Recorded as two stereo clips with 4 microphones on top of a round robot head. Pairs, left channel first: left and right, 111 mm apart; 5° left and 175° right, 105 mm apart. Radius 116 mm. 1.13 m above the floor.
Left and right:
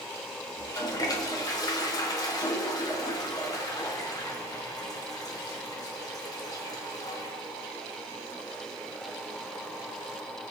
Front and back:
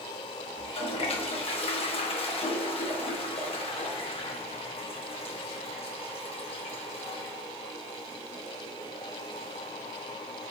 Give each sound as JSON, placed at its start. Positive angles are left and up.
{"t": 0.6, "sound": "a toilet flushing", "azimuth_deg": 35, "distance_m": 1.5}